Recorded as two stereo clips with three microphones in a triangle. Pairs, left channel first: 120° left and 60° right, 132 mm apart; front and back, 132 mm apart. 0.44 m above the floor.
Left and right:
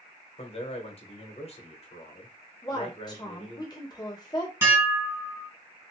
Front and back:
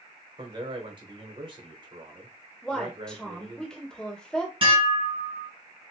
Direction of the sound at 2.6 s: 80° left.